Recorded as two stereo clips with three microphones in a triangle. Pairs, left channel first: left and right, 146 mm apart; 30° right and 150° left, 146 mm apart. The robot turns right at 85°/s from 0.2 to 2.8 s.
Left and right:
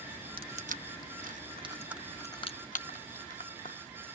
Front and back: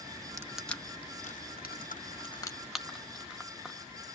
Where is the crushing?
140° right, 0.7 m; by 3.8 s 65° left, 0.7 m.